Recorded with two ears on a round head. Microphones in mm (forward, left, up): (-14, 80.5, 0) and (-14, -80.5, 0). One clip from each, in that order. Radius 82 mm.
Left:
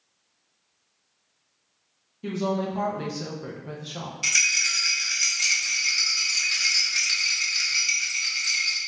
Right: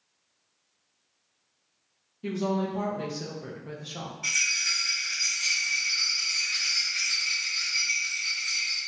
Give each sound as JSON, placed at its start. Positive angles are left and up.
{"t": 2.2, "sound": "a woman speaking", "side_deg": 5, "distance_m": 1.0}
{"t": 4.2, "sound": "a rattle", "side_deg": 75, "distance_m": 1.6}